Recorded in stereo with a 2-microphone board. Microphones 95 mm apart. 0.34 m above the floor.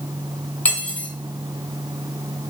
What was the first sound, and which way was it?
Cutlery clinking, 15° left (ahead or behind).